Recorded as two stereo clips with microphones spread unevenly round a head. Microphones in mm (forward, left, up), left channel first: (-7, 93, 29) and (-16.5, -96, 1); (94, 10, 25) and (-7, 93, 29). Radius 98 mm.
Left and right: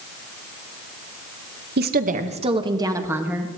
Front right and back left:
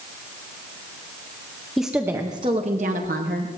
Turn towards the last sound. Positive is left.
turn(degrees=180)